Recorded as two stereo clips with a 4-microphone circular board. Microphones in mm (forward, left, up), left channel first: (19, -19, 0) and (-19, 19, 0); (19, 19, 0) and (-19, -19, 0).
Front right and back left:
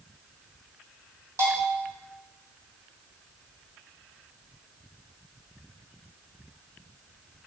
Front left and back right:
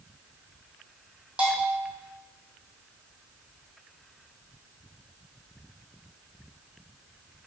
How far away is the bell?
About 2.0 m.